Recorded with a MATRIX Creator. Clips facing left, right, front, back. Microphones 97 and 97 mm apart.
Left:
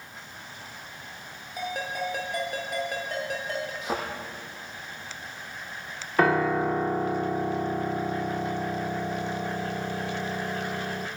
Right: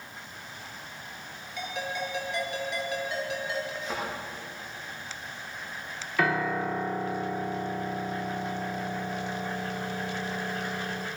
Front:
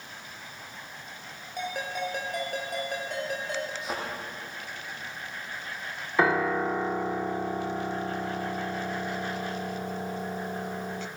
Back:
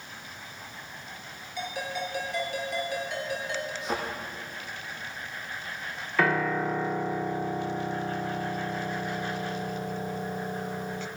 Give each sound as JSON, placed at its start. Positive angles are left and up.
{"t": 1.6, "sound": "a ringtone", "azimuth_deg": 45, "distance_m": 6.5}
{"t": 3.8, "sound": "a thud", "azimuth_deg": 85, "distance_m": 9.0}
{"t": 6.2, "sound": "a piano", "azimuth_deg": 60, "distance_m": 1.3}